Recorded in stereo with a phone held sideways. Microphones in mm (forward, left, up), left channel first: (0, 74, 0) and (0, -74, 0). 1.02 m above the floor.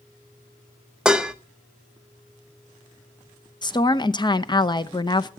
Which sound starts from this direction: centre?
Dishes clattering, at 1.1 s.